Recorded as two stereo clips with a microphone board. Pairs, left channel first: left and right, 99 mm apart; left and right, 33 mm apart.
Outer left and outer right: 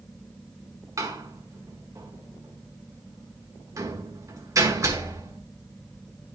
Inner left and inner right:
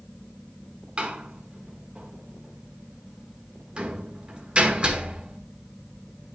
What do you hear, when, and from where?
1.0 s a door slam: 35° right (ahead or behind), 1.2 m